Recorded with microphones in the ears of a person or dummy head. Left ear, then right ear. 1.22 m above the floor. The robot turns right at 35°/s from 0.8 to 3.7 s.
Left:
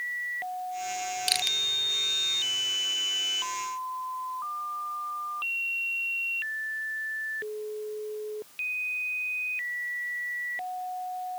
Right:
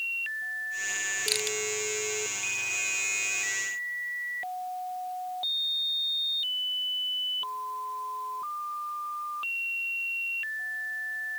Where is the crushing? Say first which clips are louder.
Left 7 dB; 10° left (ahead or behind); by 1.6 s centre (ahead or behind).